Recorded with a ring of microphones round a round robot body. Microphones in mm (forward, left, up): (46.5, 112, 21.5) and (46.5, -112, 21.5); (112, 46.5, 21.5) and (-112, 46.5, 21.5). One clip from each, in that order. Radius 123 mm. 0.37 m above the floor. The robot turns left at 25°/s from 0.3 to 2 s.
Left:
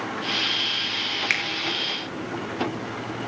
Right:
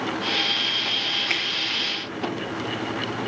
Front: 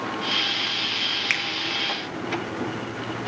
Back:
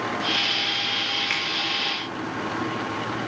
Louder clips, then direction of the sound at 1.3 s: Even, front 1 dB; 45° left.